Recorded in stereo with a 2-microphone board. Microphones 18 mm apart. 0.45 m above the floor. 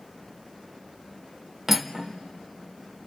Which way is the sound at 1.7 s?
15° right (ahead or behind).